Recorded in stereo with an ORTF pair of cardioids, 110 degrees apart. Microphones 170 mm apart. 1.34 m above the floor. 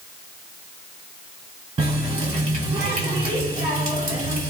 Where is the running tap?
40° right, 2 m.